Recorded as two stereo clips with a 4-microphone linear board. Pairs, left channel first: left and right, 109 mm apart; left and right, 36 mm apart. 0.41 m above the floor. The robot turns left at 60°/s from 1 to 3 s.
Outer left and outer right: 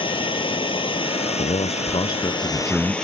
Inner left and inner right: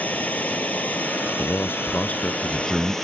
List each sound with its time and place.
0.0 s running water: 130° left; by 3.0 s 10° left
1.4 s a man speaking: 85° left; by 2.9 s 10° right